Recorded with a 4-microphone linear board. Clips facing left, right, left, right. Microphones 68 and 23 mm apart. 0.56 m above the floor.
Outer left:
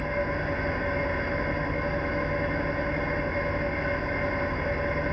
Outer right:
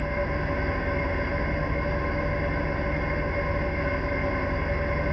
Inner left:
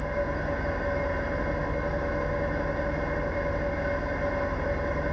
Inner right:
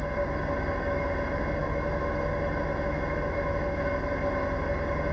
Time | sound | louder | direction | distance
0.0 | an engine running | even, even | 35° left (ahead or behind) | 1.1 m